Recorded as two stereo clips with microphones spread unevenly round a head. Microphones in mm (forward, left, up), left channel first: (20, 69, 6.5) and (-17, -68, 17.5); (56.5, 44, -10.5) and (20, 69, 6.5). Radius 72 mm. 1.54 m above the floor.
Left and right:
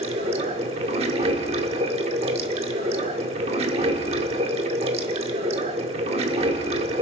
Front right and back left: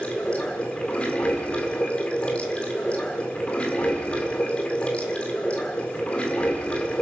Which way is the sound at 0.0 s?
120° right.